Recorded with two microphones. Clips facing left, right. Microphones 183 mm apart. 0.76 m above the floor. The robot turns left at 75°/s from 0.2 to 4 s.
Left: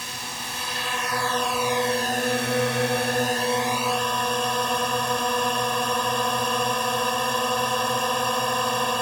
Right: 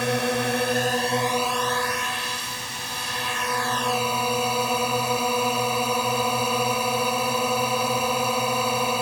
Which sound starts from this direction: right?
A drone, at 0.0 s.